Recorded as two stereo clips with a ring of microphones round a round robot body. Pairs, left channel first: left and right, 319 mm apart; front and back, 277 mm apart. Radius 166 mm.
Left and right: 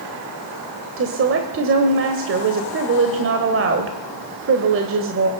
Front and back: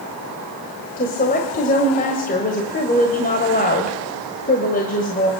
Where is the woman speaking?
55° right, 1.3 m.